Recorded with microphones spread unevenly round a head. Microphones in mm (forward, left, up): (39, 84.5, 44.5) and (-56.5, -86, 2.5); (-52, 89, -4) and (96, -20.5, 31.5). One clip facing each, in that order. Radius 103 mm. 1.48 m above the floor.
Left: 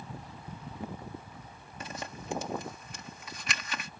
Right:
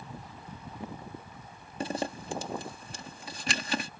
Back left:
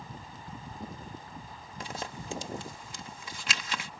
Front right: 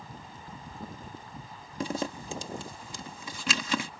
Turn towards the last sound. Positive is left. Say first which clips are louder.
# right 9 dB, front right 8 dB
turn(degrees=-55)